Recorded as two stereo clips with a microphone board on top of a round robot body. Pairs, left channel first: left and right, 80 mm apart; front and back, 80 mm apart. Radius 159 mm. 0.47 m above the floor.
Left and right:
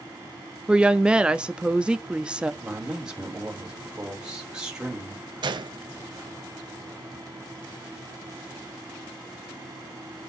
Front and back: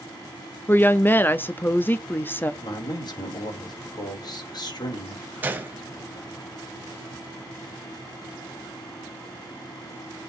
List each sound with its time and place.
0.7 s a woman speaking: 25° right, 0.8 m
2.6 s a man speaking: 10° right, 3 m
5.4 s a gunshot: 110° right, 1.1 m